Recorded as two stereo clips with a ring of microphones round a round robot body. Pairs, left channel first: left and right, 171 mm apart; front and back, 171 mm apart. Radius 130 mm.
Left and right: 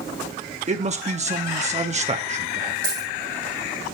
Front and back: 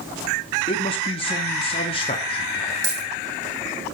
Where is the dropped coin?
145° right, 5.5 m.